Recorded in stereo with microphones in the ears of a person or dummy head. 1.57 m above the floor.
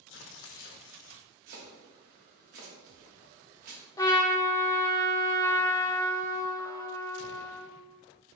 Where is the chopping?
45° right (ahead or behind), 1.6 m.